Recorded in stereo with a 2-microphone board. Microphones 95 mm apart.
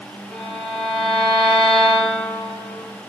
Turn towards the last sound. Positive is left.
turn(degrees=5)  # may be behind; listen again after turning